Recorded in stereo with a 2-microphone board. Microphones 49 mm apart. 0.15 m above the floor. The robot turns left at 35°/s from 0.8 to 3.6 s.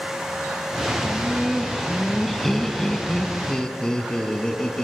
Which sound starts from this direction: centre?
Laughter, at 1.0 s.